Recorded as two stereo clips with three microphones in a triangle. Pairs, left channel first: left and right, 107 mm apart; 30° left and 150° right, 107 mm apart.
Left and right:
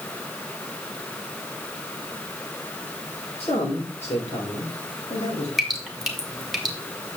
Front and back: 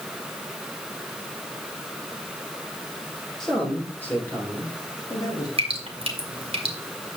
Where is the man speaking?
115° left, 3 m; by 5.5 s 80° left, 3 m.